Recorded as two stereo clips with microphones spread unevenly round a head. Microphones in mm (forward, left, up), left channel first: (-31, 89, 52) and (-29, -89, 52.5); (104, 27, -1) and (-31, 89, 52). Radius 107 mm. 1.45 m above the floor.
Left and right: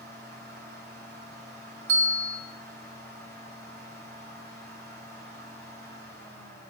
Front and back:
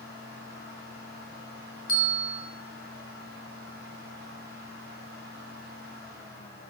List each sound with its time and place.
0.0 s a fan: 120° right, 6.5 m
1.9 s a bell: 75° right, 3 m